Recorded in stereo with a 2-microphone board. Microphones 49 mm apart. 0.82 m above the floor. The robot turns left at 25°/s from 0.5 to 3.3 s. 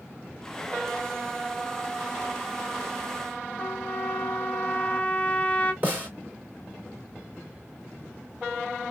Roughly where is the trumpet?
Left.